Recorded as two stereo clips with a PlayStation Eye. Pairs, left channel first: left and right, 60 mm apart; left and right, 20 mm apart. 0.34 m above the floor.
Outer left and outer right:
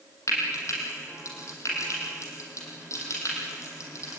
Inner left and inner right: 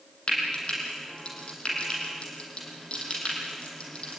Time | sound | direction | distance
0.3 | frying | 55° left (ahead or behind) | 6 m